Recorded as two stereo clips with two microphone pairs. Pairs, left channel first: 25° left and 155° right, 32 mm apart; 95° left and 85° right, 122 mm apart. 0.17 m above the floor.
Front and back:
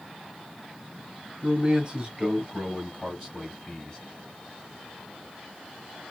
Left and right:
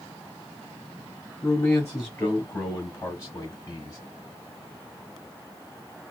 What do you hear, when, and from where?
1.4 s a man speaking: 155° left, 1.9 m; by 4.0 s 75° left, 1.9 m